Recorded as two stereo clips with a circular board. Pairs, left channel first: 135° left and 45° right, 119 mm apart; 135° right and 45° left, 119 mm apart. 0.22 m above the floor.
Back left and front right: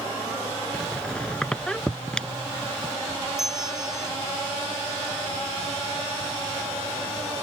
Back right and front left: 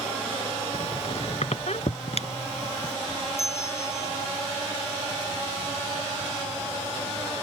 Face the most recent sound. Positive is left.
turn(degrees=-160)